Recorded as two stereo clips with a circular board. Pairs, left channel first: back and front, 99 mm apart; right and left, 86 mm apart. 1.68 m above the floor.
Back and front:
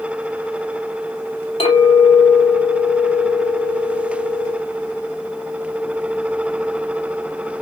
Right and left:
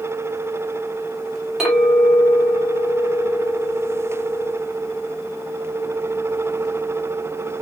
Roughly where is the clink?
Behind.